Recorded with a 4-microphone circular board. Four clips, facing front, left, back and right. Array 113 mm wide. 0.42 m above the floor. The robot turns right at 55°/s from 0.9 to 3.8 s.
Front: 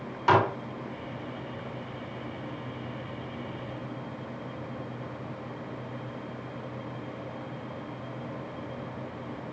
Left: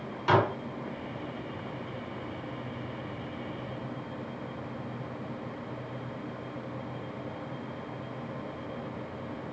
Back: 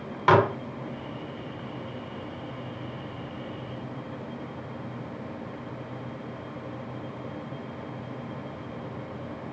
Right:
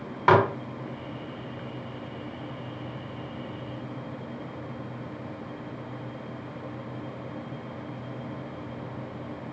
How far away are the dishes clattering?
About 1.0 m.